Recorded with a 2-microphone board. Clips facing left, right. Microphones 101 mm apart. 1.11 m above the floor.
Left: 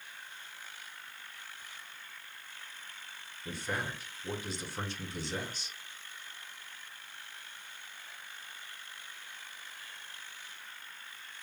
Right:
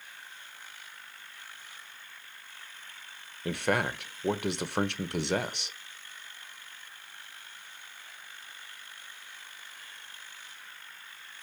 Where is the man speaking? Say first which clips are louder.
Right 9 dB; 70° right (ahead or behind), 0.6 m.